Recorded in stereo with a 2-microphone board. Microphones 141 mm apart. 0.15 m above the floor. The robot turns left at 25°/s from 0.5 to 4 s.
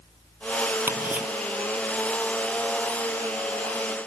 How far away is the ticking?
About 1.0 m.